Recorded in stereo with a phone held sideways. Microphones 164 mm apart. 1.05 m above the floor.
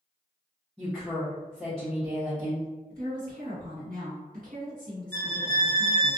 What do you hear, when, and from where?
0.8 s a woman speaking: centre (ahead or behind), 1.0 m
2.9 s a woman speaking: 60° right (ahead or behind), 1.6 m
5.1 s a violin: 10° left (ahead or behind), 0.6 m